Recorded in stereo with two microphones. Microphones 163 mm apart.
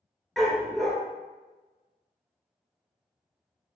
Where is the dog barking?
Centre (ahead or behind), 0.6 m.